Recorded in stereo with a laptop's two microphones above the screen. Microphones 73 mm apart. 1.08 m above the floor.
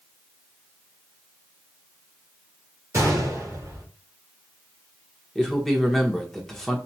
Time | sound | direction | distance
2.9 | a gunshot | 45° right (ahead or behind) | 2.0 m
5.3 | a man speaking | 5° left (ahead or behind) | 1.2 m